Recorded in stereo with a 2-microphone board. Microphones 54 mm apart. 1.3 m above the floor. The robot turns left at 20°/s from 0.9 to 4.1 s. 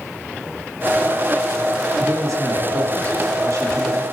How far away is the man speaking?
About 2.5 m.